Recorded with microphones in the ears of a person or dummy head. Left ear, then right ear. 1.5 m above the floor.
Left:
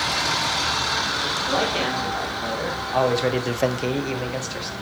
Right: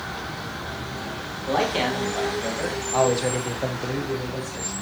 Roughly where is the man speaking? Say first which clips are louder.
Right 4 dB; centre.